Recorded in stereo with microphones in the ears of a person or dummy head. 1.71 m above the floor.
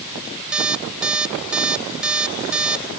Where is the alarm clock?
5° right (ahead or behind).